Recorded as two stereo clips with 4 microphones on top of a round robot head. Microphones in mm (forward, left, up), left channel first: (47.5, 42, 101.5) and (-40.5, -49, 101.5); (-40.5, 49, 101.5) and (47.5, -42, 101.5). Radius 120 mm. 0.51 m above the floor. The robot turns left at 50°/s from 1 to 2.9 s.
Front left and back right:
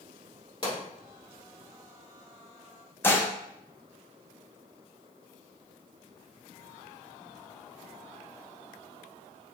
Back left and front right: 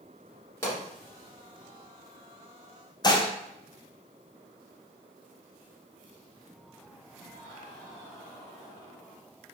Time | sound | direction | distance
0.6 | a pop | 80° left | 1.7 m
3.0 | dishes clattering | 105° left | 0.6 m